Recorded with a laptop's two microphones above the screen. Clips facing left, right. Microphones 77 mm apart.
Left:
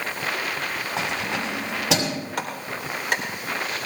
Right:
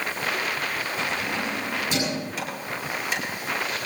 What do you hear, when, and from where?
1.0 s keys jangling: 80° left, 5.5 m
2.4 s a clap: 55° left (ahead or behind), 4 m